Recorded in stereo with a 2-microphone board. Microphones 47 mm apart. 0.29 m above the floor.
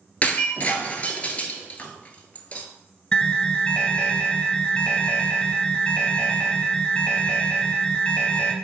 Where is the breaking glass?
35° left (ahead or behind), 0.6 m.